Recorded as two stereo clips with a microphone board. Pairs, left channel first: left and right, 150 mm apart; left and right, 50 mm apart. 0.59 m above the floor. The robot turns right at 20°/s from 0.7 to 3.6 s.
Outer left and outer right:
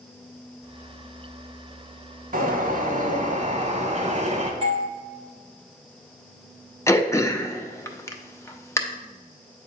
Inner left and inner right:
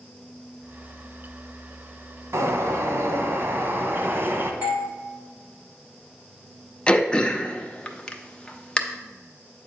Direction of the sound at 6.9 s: 20° left (ahead or behind).